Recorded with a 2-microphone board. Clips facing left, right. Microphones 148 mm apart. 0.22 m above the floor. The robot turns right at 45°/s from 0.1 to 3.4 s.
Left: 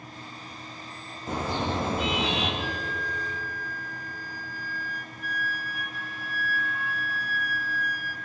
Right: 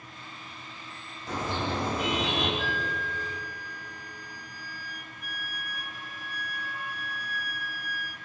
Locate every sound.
1.3 s a car horn: 25° left, 7.5 m; by 2.5 s 80° left, 7.5 m
2.6 s a flute: 160° left, 2.5 m; by 8.2 s 165° right, 2.5 m